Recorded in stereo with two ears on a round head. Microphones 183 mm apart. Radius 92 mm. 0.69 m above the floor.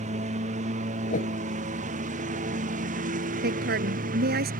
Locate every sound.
0.0 s a lawn mower: 35° right (ahead or behind); by 4.6 s 45° right (ahead or behind)
1.1 s a whoosh: 40° left (ahead or behind)
3.4 s a woman speaking: 55° right (ahead or behind)